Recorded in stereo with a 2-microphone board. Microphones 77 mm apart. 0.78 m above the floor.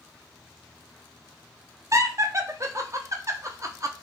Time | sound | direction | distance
1.9 | laughter | 45° right (ahead or behind) | 0.7 m